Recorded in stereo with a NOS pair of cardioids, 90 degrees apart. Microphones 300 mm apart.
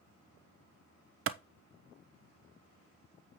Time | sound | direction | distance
1.3 | a clap | 45° right | 0.8 m